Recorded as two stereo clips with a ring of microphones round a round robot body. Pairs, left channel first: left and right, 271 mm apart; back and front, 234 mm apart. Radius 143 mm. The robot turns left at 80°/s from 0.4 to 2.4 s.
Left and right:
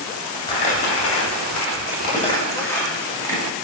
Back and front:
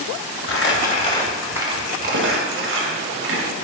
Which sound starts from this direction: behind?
Crumpling, at 0.5 s.